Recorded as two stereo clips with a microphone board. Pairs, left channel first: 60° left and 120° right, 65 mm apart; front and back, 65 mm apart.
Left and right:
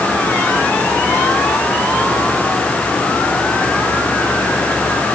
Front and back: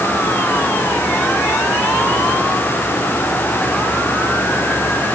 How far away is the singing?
I don't hear singing.